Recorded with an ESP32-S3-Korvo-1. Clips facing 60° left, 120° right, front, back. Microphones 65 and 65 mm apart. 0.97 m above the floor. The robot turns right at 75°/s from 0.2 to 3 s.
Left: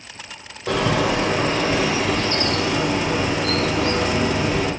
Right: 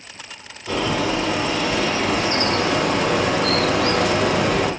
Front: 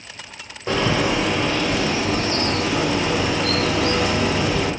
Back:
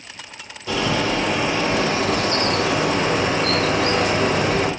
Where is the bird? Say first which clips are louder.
Left 2 dB, front 1 dB; 45° left, 2 m; by 4.7 s 140° right, 2 m.